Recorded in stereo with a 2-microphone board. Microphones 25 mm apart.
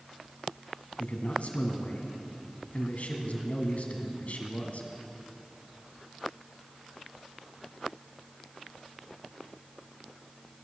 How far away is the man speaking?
About 2.5 m.